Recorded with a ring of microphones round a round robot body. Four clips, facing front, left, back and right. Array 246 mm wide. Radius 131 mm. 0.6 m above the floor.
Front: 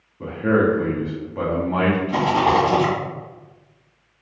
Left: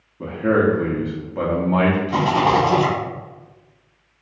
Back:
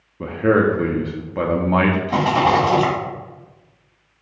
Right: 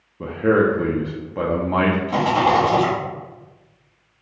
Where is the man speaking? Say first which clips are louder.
Right 1 dB, back 2 dB; 165° right, 0.6 m.